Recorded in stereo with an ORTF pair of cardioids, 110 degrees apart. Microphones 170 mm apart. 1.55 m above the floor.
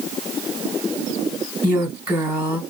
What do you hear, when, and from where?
1.6 s a woman speaking: 10° right, 1.3 m